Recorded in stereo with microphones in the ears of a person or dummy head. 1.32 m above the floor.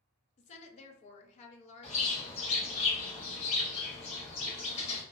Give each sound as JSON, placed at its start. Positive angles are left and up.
{"t": 0.4, "sound": "a woman speaking", "side_deg": 40, "distance_m": 0.6}
{"t": 1.8, "sound": "a bird", "side_deg": 40, "distance_m": 1.5}